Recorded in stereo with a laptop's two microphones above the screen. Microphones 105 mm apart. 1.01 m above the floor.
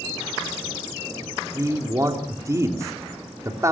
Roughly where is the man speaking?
Right.